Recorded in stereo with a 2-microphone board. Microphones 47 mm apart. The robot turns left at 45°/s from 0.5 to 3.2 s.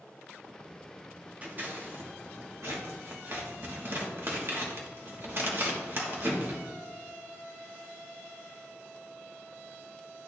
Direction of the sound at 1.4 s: 35° right (ahead or behind).